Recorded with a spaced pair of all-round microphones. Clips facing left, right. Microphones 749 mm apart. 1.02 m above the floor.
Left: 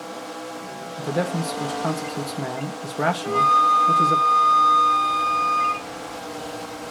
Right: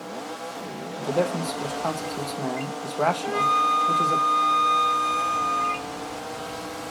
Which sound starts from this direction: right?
A flute, at 3.2 s.